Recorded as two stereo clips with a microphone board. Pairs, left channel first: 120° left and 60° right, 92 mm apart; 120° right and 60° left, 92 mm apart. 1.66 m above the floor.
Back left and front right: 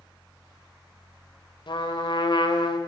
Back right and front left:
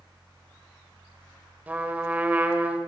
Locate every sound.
1.7 s a trumpet: 130° left, 2.5 m